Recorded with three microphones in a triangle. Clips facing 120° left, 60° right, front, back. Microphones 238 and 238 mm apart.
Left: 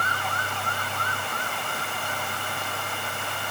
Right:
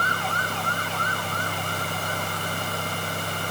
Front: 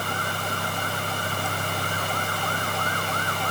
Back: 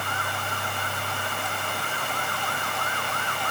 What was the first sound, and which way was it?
Only background noise.